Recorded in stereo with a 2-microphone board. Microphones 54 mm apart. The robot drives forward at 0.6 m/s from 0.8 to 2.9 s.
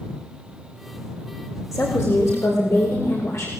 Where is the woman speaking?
65° left (ahead or behind), 8 m; by 3.5 s 60° left (ahead or behind), 8.5 m.